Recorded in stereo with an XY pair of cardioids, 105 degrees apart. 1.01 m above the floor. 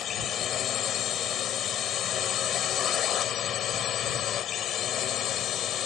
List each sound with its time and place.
0.0 s a drone: 60° left; by 5.9 s 65° left